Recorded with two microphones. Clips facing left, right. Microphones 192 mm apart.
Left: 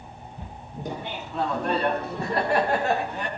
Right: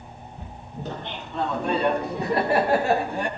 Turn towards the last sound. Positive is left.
turn(degrees=-35)  # may be behind; listen again after turning